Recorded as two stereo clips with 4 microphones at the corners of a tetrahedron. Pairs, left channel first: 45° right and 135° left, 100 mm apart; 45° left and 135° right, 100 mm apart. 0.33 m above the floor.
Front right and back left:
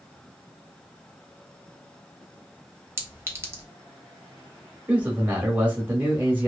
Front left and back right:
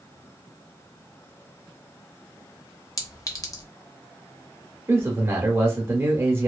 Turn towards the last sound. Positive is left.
turn(degrees=-170)